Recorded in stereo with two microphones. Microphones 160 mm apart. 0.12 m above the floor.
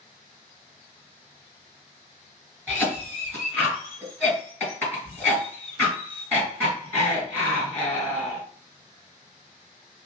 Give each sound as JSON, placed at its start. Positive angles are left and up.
{"t": 2.7, "sound": "a cough", "side_deg": 10, "distance_m": 2.0}